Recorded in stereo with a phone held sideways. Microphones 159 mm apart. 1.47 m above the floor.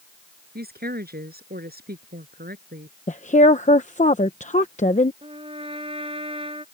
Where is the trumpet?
35° right (ahead or behind).